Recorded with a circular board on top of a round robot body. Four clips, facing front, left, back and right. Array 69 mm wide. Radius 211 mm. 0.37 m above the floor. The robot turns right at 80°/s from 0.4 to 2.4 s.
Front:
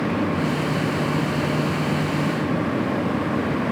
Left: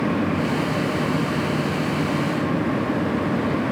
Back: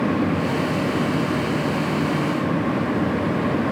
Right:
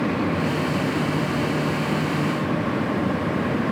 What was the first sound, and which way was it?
Only background noise.